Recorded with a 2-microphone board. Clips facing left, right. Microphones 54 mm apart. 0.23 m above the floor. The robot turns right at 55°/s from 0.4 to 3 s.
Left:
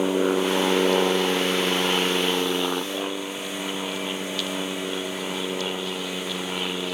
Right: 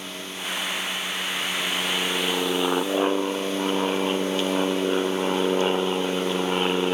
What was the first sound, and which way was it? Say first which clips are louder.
An aircraft: left 13 dB; 65° left.